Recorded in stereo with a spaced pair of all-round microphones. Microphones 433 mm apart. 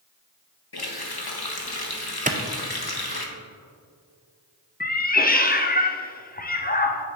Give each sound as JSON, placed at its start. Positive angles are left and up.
{"t": 0.7, "sound": "a running tap", "side_deg": 60, "distance_m": 1.0}
{"t": 2.3, "sound": "a clap", "side_deg": -20, "distance_m": 0.5}
{"t": 4.8, "sound": "a cat meowing", "side_deg": 20, "distance_m": 0.5}